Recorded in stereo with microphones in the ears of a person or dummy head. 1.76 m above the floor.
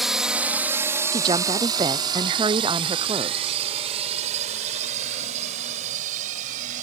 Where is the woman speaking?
25° right (ahead or behind).